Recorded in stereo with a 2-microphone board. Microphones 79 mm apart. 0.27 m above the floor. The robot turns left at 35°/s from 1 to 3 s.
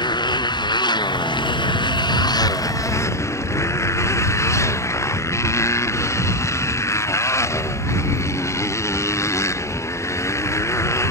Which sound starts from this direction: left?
A motorcycle, at 0.0 s.